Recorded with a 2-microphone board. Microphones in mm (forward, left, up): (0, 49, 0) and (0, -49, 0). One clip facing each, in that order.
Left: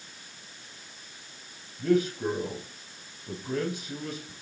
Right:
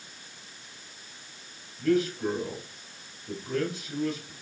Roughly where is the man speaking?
Left.